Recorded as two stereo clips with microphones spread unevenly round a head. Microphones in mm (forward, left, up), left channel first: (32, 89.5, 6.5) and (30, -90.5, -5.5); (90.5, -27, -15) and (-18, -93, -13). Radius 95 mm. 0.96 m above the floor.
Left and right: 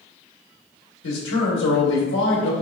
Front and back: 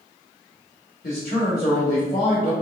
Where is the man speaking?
75° left, 1.4 m.